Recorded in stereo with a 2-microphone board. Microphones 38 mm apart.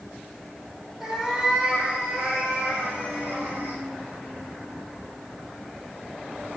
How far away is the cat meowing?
About 3 m.